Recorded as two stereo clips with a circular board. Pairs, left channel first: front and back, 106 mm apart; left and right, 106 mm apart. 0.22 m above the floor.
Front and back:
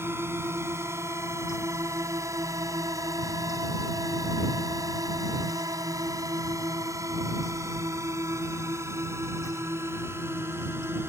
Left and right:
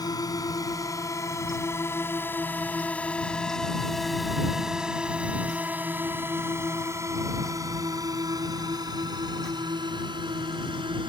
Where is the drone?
125° left; by 11.1 s 115° right.